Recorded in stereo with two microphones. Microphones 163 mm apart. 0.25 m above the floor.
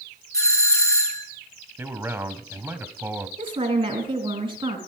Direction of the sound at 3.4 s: 30° right (ahead or behind).